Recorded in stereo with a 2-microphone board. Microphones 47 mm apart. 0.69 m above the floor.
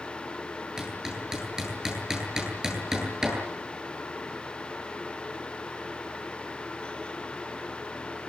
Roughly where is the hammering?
Centre.